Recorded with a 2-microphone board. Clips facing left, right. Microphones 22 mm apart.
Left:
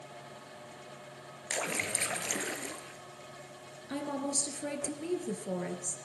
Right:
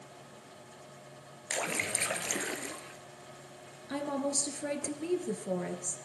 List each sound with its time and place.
1.5 s a splash: 5° right (ahead or behind), 1.0 m
3.9 s a woman speaking: 10° right (ahead or behind), 2.0 m